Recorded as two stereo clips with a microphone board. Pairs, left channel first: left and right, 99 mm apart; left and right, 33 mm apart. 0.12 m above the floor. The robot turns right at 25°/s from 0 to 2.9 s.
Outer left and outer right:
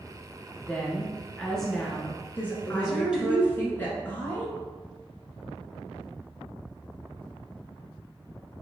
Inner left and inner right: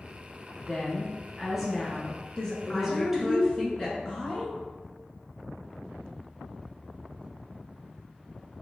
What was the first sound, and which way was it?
A woman speaking, 15° left (ahead or behind).